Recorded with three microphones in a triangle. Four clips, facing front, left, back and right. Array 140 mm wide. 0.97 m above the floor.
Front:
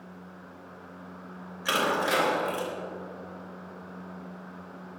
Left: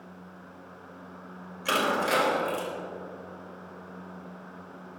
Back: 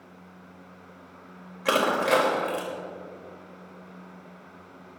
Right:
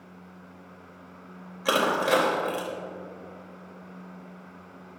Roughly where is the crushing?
Behind right.